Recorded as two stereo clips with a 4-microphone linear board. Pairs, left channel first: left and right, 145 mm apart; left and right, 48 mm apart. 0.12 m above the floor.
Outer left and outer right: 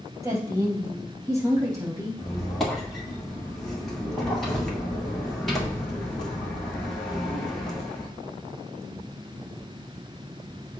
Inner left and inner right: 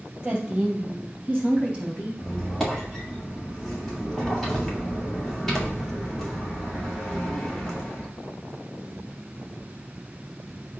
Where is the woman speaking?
20° right (ahead or behind), 2.5 m.